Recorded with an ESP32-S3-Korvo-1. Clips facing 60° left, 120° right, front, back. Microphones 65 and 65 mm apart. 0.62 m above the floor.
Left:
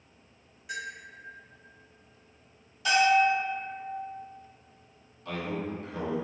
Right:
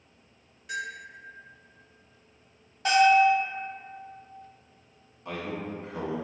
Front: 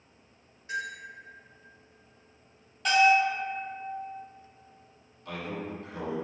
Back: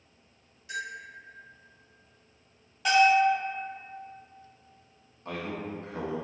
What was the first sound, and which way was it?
A bell, 20° right.